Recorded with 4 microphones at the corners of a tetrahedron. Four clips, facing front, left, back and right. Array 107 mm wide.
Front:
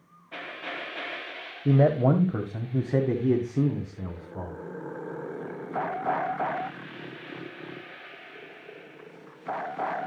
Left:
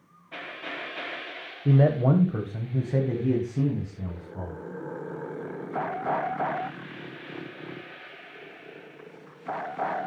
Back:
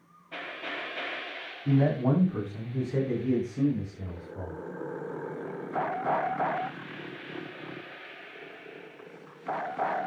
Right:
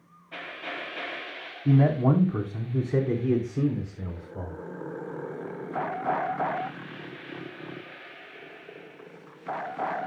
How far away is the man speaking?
About 1.4 m.